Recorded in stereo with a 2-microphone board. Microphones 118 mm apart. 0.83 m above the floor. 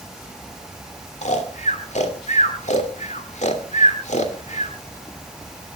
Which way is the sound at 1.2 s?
70° left (ahead or behind).